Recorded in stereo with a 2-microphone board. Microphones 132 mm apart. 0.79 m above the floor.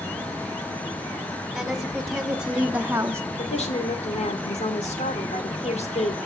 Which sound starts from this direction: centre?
A woman speaking, at 1.6 s.